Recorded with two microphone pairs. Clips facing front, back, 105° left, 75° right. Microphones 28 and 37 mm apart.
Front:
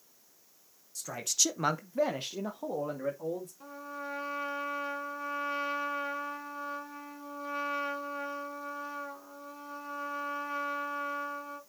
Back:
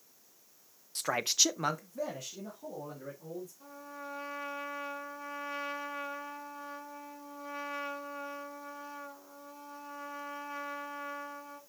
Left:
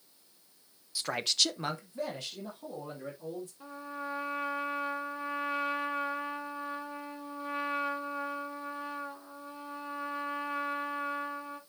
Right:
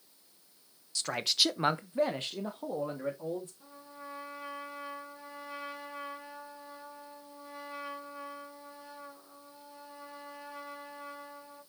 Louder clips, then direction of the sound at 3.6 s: Front 4 dB, left 8 dB; 65° left.